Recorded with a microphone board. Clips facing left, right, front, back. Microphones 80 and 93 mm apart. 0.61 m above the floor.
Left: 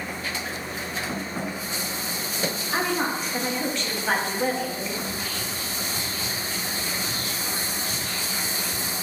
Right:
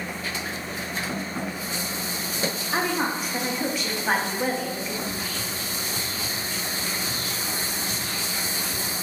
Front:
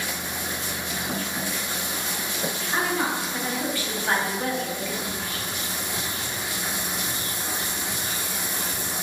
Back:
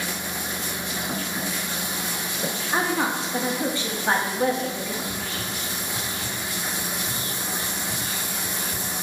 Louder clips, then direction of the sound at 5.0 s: Even, back 1 dB; 20° right.